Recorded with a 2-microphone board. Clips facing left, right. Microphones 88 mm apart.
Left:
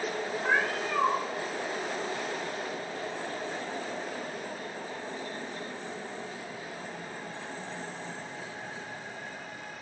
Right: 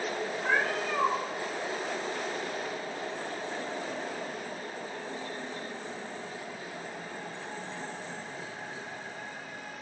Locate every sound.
0.4 s a cat meowing: 15° left (ahead or behind), 1.2 m